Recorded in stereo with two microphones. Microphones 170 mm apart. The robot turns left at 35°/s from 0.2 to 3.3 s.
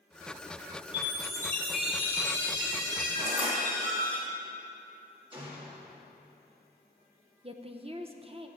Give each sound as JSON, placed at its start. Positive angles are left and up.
{"t": 0.9, "sound": "a chime", "azimuth_deg": 30, "distance_m": 1.8}
{"t": 3.2, "sound": "crushing", "side_deg": -40, "distance_m": 1.3}
{"t": 5.3, "sound": "a gunshot", "side_deg": -30, "distance_m": 1.6}
{"t": 7.4, "sound": "a woman speaking", "side_deg": -35, "distance_m": 0.5}